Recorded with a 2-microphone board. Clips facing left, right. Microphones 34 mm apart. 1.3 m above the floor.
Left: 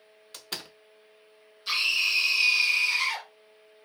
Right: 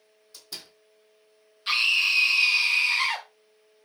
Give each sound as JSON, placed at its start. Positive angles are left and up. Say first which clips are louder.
{"t": 0.3, "sound": "a door slam", "louder": "left 4 dB", "side_deg": 55, "distance_m": 0.7}
{"t": 1.7, "sound": "a scream", "louder": "right 3 dB", "side_deg": -35, "distance_m": 1.5}